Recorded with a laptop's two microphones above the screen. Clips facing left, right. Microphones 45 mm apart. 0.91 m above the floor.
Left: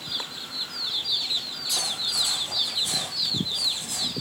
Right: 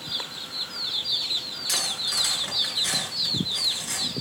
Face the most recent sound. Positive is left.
turn(degrees=-85)